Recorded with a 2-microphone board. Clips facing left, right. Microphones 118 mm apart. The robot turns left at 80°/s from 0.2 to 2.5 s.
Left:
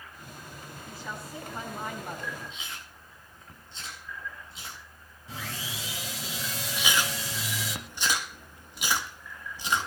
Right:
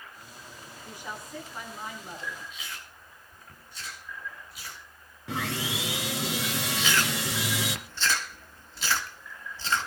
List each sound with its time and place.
0.8 s a woman speaking: 155° right, 6.5 m; by 2.4 s 80° left, 6.5 m
2.5 s chewing: 25° left (ahead or behind), 7.5 m
5.3 s sawing: 75° right (ahead or behind), 2.0 m
6.8 s chewing: 15° left (ahead or behind), 1.6 m